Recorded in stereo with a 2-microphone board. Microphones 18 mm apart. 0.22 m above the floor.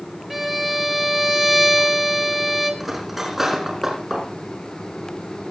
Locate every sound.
0.3 s a violin: 10° right (ahead or behind), 3 m
2.8 s cutlery clinking: 10° right (ahead or behind), 6 m